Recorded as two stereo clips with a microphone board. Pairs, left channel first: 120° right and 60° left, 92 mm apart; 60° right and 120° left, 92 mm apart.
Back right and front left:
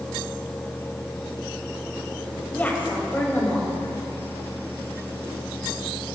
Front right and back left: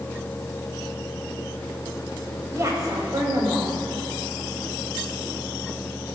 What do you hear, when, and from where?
2.5 s a woman speaking: 170° left, 4 m